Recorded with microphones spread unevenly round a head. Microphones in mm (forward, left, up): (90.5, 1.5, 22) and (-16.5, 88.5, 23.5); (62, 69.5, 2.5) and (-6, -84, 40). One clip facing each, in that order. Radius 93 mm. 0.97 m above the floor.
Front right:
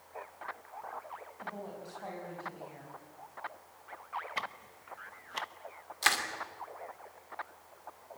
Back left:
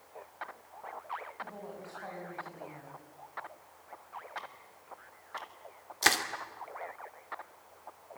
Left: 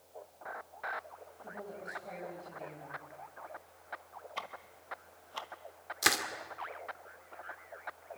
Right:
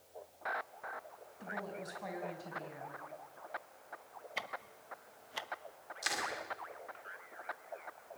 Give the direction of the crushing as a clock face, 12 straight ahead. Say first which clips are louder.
Back left 3 dB, left 7 dB; 9 o'clock.